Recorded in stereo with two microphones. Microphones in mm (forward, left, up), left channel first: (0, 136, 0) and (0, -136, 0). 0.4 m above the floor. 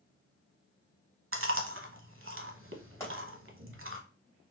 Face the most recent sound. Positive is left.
turn(degrees=10)  # may be behind; listen again after turning